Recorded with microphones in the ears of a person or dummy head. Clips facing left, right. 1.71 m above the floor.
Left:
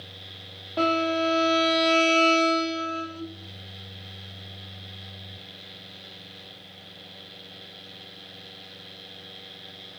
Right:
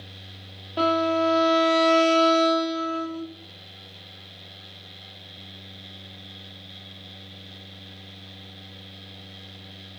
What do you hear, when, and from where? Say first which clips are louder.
0.8 s a violin: right 2 dB; 5° right (ahead or behind), 0.6 m